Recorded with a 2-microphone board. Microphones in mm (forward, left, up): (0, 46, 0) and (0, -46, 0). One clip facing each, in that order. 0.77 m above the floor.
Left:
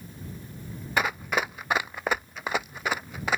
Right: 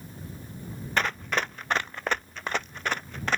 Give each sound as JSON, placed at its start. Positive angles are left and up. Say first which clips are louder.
{"t": 1.0, "sound": "running footsteps", "louder": "left 1 dB", "side_deg": 5}